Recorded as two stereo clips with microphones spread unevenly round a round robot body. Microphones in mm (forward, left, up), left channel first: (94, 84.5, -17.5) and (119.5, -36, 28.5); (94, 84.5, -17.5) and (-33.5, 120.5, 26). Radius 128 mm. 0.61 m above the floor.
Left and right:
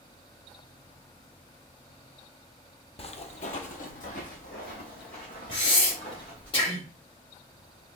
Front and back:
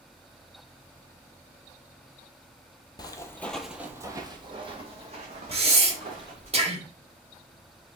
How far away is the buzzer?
I don't hear a buzzer.